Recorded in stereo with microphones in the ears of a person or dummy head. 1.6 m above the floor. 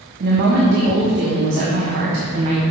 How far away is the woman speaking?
About 1.3 m.